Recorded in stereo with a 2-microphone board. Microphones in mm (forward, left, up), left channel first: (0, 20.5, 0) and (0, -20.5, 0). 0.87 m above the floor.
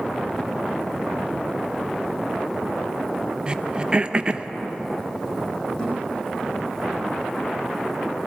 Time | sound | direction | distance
3.5 | throat clearing | 25° right (ahead or behind) | 0.6 m
5.8 | a thud | 25° left (ahead or behind) | 10 m